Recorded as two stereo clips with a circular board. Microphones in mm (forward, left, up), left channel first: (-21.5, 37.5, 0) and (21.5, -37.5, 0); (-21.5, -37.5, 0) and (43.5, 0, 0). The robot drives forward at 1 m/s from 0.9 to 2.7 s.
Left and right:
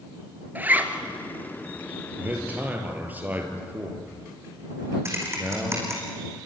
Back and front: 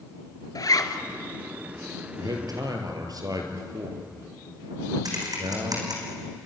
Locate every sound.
0.6 s a zipper: 125° right, 1.7 m; by 1.0 s 130° right, 1.7 m
2.2 s a man speaking: 5° left, 4 m; by 6.0 s 10° left, 3.5 m
5.0 s typing on a keyboard: straight ahead, 5 m